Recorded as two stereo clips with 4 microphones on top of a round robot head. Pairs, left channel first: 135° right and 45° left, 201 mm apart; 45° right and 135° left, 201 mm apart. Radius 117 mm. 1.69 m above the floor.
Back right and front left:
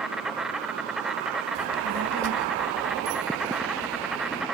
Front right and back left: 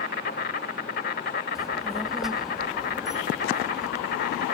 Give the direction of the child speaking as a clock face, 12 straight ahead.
10 o'clock.